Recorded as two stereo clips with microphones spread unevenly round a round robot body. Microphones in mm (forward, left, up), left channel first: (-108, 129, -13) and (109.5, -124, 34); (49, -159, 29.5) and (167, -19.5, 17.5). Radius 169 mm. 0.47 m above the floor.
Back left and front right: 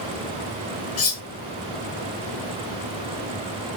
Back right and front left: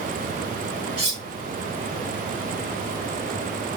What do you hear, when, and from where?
1.0 s cutlery clinking: 90° left, 1.4 m